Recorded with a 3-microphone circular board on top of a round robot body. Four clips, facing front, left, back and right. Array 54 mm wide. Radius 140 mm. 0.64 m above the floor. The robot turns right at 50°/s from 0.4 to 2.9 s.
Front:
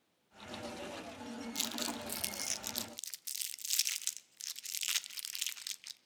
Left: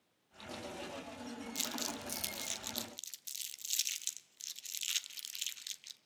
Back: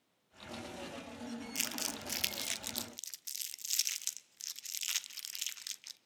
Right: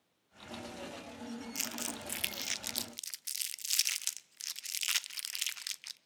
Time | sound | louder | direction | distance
1.6 | crumpling | even, front 1 dB | 155° right | 0.7 m